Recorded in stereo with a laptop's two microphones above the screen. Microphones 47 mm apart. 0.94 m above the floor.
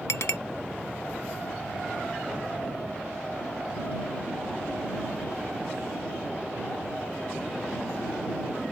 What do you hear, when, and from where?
0.1 s a clink: 70° left (ahead or behind)